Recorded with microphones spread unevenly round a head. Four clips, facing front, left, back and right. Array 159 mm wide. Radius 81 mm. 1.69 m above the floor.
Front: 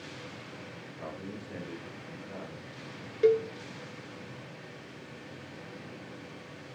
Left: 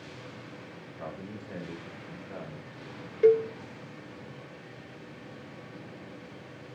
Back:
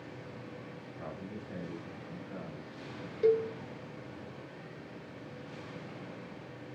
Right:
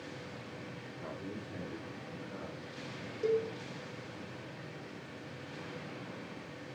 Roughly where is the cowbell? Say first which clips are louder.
Left 10 dB, front 3 dB; ahead left.